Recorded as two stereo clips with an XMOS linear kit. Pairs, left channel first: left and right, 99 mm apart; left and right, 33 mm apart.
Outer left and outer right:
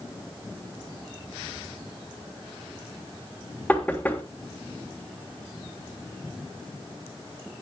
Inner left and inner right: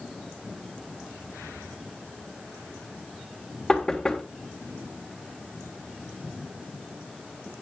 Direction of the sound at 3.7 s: 15° left (ahead or behind).